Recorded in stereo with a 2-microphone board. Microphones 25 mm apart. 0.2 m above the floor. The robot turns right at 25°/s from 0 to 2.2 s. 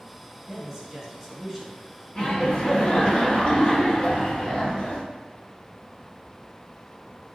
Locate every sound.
0.4 s a man speaking: 25° right, 1.5 m; by 3.1 s 15° left, 1.5 m
2.1 s laughter: 40° left (ahead or behind), 1.5 m